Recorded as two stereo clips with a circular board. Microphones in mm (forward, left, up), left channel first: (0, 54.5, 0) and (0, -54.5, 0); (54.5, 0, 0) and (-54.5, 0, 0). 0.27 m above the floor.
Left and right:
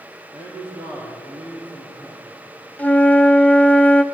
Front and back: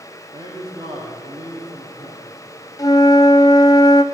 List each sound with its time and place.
0.3 s a man speaking: 130° right, 9 m
2.8 s a flute: 25° left, 1.0 m